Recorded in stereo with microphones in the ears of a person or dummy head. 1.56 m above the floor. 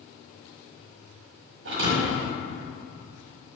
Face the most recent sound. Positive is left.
turn(degrees=-60)  # may be behind; listen again after turning